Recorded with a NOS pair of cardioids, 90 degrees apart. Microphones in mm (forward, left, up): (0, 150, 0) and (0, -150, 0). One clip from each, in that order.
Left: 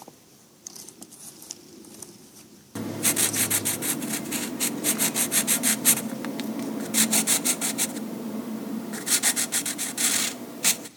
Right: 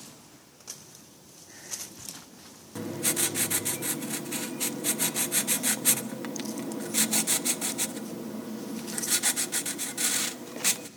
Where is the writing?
20° left, 0.9 m.